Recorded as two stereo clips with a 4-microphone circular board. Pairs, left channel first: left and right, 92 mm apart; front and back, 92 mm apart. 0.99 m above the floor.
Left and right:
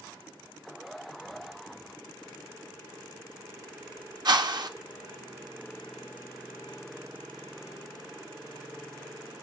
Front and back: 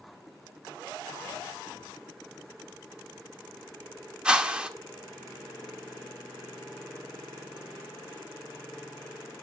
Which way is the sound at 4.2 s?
105° right.